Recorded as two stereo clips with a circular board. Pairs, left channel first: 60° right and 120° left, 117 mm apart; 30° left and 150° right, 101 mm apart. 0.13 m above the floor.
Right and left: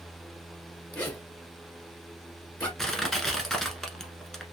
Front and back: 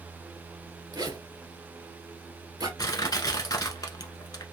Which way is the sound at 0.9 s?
130° right.